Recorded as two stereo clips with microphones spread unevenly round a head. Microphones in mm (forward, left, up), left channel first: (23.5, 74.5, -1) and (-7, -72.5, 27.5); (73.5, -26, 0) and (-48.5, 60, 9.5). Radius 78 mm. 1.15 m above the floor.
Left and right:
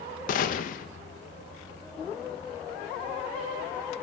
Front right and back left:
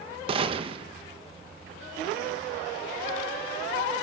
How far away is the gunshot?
About 1.5 m.